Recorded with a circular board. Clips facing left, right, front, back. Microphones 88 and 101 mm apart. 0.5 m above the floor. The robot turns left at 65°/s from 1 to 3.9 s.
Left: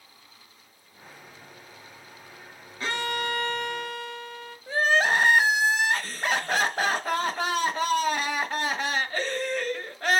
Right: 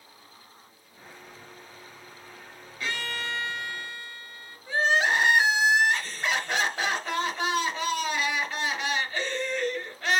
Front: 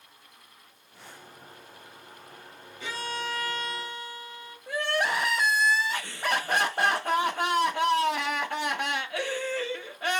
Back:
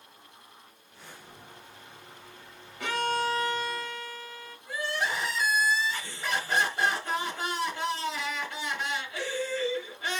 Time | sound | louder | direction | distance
2.8 | a violin | left 4 dB, back 6 dB | 150° left | 1.2 m
4.7 | crying | left 1 dB, front 4 dB | 35° left | 1.0 m